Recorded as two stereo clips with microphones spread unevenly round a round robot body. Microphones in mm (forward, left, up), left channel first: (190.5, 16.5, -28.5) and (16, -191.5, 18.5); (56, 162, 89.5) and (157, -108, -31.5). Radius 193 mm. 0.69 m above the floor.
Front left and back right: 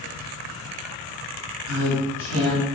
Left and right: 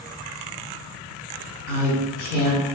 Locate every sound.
1.7 s a woman speaking: 175° left, 1.1 m